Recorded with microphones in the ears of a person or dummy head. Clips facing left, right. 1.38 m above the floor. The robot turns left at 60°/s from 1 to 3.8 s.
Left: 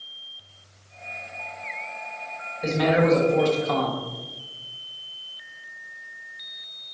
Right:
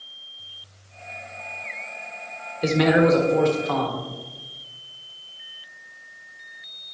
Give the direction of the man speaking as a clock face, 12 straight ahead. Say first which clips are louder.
Right 3 dB; 5 o'clock.